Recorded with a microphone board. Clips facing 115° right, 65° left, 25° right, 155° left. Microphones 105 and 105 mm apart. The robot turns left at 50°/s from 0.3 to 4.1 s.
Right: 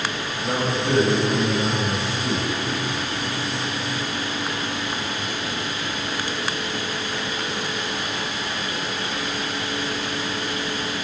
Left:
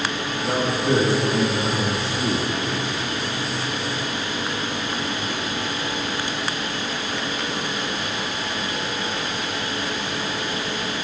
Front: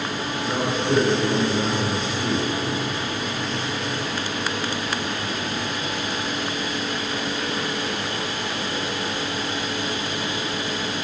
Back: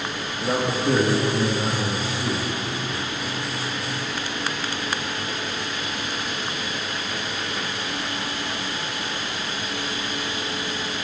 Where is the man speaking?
150° left, 4 m; by 2.5 s 50° left, 4 m.